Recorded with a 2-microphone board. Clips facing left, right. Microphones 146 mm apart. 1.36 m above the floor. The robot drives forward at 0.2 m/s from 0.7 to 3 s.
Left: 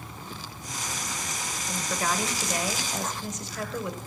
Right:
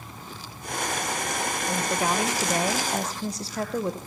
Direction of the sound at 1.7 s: 20° right (ahead or behind).